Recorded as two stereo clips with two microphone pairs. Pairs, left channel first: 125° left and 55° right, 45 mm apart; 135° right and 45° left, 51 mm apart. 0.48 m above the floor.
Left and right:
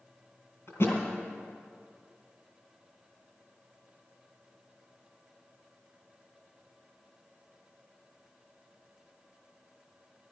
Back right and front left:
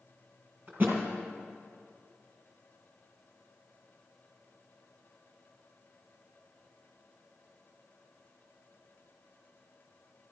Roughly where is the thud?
Left.